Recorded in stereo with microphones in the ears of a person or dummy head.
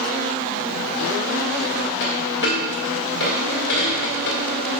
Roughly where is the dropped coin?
Left.